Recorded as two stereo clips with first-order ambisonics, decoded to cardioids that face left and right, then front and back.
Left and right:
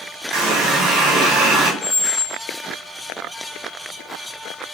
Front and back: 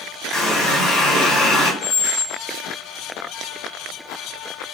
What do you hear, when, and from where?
0.3 s a running tap: 75° right, 1.6 m
1.8 s a squeak: 55° left, 0.6 m